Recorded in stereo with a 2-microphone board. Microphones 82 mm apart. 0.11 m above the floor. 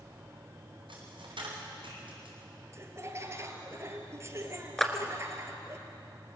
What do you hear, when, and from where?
0.9 s a dropped coin: 80° right, 6 m
2.7 s laughter: 35° right (ahead or behind), 2 m
4.8 s a clap: 5° left (ahead or behind), 1.4 m